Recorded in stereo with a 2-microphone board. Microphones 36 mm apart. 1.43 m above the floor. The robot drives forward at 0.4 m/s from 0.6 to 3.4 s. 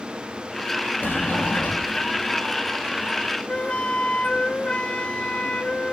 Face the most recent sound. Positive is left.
turn(degrees=30)  # may be behind; listen again after turning